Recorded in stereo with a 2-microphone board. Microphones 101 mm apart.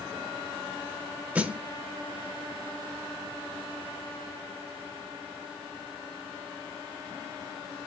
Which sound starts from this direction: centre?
A snare drum, at 1.4 s.